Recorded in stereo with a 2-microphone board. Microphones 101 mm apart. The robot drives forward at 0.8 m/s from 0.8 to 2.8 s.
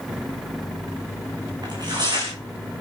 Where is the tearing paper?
45° right (ahead or behind), 5.5 m; by 2.3 s 40° right (ahead or behind), 6 m.